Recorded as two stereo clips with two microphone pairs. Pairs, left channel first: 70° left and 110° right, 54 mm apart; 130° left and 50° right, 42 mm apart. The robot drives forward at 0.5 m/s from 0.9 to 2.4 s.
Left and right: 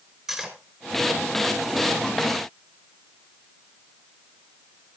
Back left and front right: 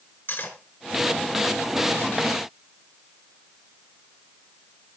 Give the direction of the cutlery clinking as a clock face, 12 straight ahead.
6 o'clock.